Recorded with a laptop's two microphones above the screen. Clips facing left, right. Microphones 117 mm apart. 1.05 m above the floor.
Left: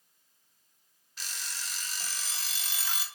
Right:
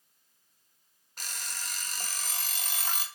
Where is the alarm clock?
50° right (ahead or behind), 0.9 m.